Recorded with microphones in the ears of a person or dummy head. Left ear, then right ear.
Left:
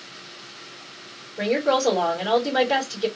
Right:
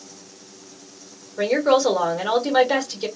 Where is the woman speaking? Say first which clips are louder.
Right 3 dB; 75° right (ahead or behind), 1.8 m.